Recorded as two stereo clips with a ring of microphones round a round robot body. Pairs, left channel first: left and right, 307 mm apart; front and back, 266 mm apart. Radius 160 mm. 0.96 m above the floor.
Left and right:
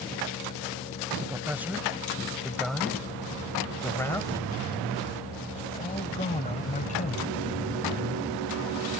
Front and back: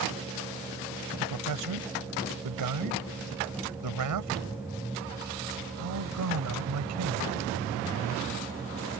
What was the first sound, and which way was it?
A man speaking, 175° right.